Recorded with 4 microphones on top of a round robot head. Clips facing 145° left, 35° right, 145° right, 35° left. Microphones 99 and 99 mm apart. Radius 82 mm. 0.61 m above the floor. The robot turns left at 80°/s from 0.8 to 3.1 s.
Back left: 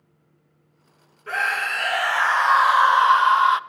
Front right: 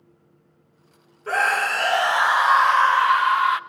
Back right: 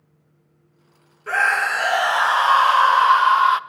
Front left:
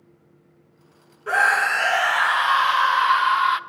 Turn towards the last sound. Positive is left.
turn(degrees=-170)